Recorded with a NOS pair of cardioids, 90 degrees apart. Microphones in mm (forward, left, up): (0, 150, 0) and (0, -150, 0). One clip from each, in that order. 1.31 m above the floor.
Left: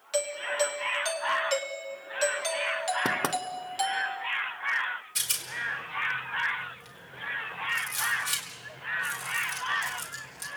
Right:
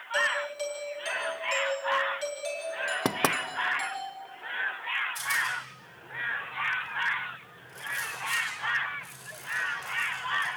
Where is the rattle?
65° left, 4.5 m.